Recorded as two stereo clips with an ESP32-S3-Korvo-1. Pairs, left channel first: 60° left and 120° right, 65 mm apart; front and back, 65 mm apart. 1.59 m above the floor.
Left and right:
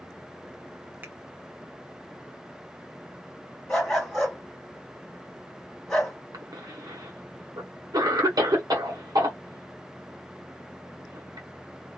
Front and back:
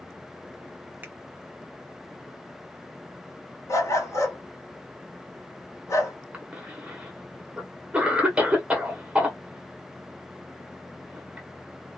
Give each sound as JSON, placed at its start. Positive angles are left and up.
{"t": 1.0, "sound": "a finger snap", "azimuth_deg": -150, "distance_m": 0.6}
{"t": 3.7, "sound": "a dog barking", "azimuth_deg": -15, "distance_m": 1.9}
{"t": 6.3, "sound": "a cough", "azimuth_deg": -110, "distance_m": 1.1}